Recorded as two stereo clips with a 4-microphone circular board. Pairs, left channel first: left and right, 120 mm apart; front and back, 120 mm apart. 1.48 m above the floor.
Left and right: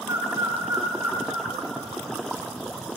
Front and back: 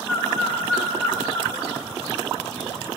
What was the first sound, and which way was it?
A bird, 60° right.